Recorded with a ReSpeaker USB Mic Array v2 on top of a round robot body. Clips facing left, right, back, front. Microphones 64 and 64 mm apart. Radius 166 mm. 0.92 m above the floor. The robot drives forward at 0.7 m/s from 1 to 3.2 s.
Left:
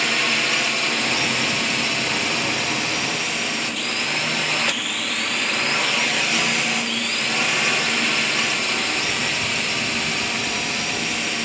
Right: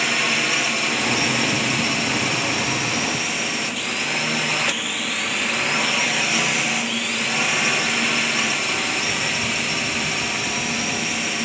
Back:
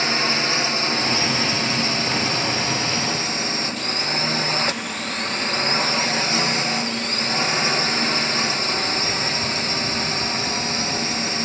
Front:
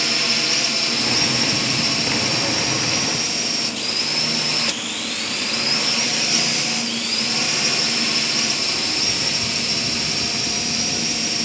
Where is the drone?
175° right.